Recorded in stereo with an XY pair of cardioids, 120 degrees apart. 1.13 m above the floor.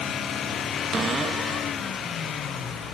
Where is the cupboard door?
35° right, 1.0 m.